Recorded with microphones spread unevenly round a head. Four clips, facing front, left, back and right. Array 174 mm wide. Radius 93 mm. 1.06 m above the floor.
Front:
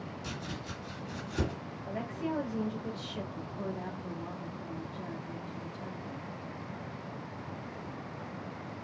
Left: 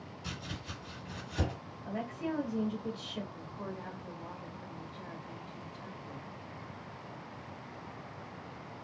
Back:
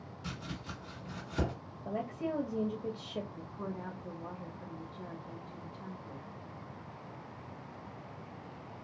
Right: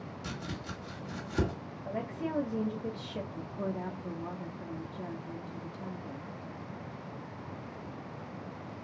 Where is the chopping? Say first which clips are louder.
Right 3 dB, back 1 dB; 95° right, 3 m.